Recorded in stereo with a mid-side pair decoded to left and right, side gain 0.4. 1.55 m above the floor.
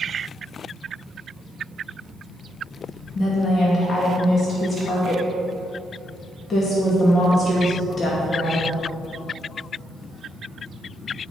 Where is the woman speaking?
55° left, 2 m.